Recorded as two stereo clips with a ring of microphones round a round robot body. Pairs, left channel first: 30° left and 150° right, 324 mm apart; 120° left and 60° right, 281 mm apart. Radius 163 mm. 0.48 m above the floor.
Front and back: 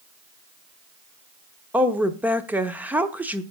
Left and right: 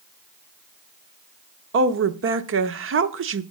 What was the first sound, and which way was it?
A woman speaking, 65° right.